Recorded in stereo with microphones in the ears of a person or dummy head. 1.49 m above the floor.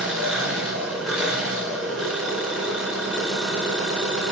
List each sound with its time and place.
0.0 s an engine running: centre (ahead or behind), 4.5 m